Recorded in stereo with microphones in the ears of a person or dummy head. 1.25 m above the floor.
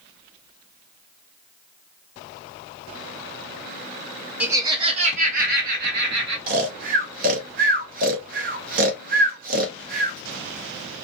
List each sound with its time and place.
4.4 s laughter: 10° right (ahead or behind), 0.6 m; by 6.4 s 60° right (ahead or behind), 1.4 m
6.5 s snoring: 50° right (ahead or behind), 0.5 m